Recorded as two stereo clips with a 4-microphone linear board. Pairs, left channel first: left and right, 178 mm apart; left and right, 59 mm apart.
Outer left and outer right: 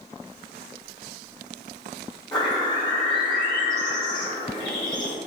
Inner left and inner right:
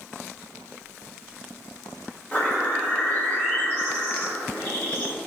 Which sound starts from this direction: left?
A bird, at 2.3 s.